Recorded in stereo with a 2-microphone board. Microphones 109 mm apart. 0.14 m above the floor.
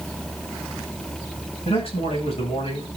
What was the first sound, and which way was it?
A man speaking, 65° left (ahead or behind).